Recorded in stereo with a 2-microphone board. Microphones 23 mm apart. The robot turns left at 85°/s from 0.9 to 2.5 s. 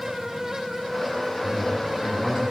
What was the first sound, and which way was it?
A man speaking, 100° right.